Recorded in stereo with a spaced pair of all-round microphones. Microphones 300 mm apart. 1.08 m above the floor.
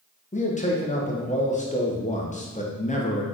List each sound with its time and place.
0.3 s a man speaking: 25° left (ahead or behind), 0.7 m